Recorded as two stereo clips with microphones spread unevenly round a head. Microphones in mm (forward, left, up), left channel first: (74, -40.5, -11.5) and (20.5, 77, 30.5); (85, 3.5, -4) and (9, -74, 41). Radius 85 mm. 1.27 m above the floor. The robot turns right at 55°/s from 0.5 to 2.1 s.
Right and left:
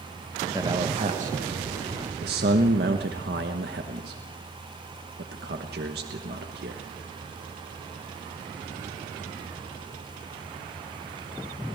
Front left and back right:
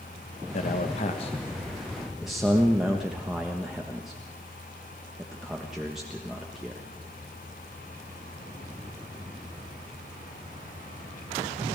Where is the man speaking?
50° left, 1.2 m; by 6.8 s 135° left, 1.2 m.